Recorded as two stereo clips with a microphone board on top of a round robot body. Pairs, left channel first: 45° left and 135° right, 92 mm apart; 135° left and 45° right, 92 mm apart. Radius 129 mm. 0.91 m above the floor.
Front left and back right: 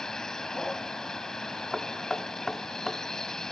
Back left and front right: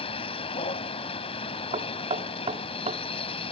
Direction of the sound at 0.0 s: 130° left.